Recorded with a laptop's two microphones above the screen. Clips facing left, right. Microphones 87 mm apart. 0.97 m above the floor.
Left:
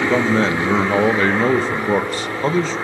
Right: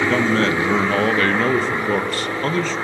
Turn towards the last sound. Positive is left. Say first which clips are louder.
# left 1 dB
turn(degrees=15)  # may be behind; listen again after turning